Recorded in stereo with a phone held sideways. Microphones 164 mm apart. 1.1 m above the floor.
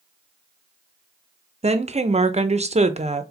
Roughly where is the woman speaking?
Right.